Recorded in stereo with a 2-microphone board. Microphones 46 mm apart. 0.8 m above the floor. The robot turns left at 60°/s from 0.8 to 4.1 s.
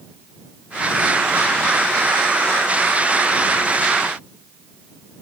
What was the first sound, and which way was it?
Only background noise.